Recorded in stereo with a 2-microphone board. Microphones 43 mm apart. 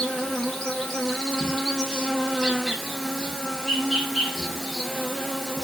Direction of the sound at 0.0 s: 10° left (ahead or behind).